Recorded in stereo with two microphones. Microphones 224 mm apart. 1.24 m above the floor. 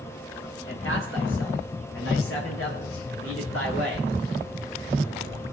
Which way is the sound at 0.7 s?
65° left (ahead or behind).